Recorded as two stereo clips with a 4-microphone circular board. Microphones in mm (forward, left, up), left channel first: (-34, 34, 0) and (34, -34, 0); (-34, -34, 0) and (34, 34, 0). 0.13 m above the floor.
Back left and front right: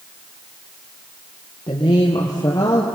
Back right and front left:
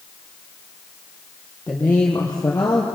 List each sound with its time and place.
1.7 s a woman speaking: 160° left, 3.5 m; by 2.9 s 170° left, 3 m